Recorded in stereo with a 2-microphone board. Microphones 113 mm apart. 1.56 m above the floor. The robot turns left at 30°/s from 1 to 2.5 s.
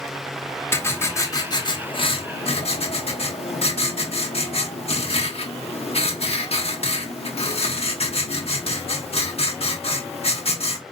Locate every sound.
0.7 s writing: 160° left, 1.1 m; by 10.8 s 115° left, 1.1 m